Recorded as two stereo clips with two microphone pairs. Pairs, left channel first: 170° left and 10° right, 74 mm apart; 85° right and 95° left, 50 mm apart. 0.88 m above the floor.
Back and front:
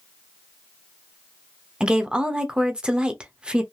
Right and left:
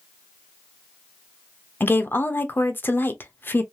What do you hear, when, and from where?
1.8 s a woman speaking: 85° right, 0.7 m